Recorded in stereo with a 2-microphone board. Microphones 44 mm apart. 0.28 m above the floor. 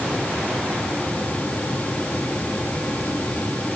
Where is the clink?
No clink in this recording.